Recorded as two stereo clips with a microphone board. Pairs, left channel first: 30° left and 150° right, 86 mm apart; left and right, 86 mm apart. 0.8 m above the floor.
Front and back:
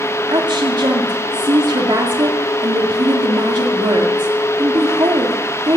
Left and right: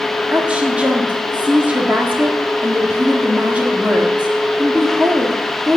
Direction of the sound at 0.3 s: 160° right.